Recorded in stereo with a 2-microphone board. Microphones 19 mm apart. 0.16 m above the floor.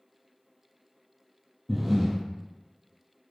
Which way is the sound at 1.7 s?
10° right (ahead or behind).